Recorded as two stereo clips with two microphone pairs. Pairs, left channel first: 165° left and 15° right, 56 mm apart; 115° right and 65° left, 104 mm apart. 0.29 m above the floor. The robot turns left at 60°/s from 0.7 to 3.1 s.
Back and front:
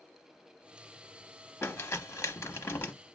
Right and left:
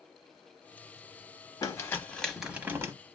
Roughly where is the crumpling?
Behind.